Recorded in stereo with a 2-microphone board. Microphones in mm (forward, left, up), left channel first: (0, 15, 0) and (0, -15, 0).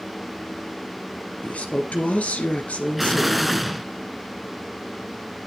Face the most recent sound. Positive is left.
turn(degrees=0)  # may be behind; listen again after turning